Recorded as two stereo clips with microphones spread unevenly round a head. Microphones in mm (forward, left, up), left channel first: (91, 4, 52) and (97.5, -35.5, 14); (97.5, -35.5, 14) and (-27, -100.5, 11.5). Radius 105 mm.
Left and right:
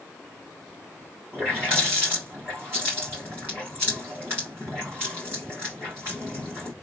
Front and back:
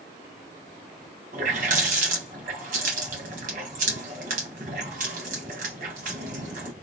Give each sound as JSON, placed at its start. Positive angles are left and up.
{"t": 1.3, "sound": "a running tap", "azimuth_deg": 170, "distance_m": 1.3}